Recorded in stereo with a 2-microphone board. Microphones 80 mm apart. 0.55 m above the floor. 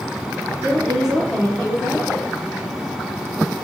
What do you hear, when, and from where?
0.6 s a woman speaking: 35° right (ahead or behind), 1.0 m; by 2.2 s 60° left (ahead or behind), 1.8 m